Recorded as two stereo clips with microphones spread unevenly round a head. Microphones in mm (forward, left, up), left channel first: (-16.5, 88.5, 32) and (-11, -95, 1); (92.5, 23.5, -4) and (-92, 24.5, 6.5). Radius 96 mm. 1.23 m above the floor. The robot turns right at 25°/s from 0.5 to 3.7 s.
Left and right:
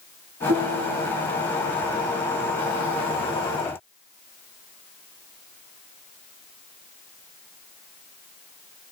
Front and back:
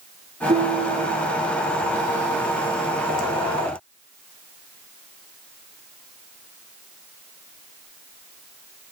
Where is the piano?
125° right, 2.5 m; by 1.3 s 105° right, 2.5 m.